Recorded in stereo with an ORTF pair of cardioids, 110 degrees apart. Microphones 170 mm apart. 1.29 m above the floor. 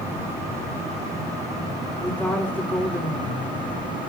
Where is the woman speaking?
10° left, 3.5 m.